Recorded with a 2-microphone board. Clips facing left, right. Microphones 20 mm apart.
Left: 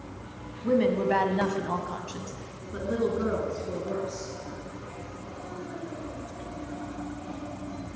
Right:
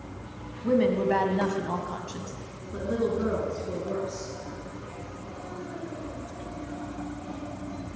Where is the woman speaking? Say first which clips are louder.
Right 1 dB; centre (ahead or behind), 1.6 m; by 4.3 s 45° left (ahead or behind), 3.5 m.